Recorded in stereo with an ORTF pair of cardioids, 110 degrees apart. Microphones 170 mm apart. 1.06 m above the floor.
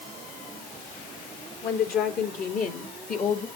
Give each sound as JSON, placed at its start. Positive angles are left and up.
{"t": 1.6, "sound": "a woman speaking", "azimuth_deg": 70, "distance_m": 3.5}